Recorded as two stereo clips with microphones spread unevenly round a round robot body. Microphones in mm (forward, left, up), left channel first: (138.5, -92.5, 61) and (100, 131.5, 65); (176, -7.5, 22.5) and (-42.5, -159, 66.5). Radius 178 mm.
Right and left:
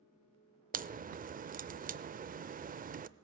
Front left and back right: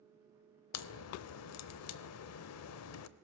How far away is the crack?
About 0.6 m.